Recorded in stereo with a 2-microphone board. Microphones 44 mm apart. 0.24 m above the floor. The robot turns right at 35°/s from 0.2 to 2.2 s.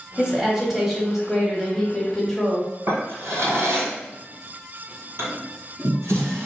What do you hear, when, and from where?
0.2 s a woman speaking: 15° right (ahead or behind), 1.1 m; by 2.7 s 10° left (ahead or behind), 1.1 m
2.9 s a drawer: 75° right (ahead or behind), 2.0 m